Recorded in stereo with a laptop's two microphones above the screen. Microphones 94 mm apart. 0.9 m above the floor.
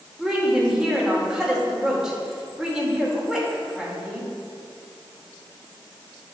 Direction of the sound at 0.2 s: 10° right (ahead or behind).